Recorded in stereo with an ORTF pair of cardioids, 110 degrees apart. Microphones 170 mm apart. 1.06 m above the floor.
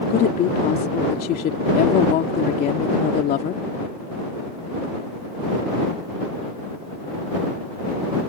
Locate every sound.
0.1 s a woman speaking: 65° left